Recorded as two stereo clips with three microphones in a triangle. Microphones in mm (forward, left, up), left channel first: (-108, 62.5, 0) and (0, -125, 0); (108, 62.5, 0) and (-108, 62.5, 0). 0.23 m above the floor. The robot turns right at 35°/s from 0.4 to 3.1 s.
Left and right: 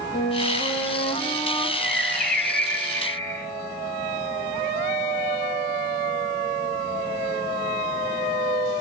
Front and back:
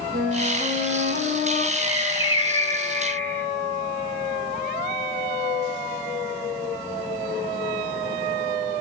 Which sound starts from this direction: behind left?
A flute, at 0.1 s.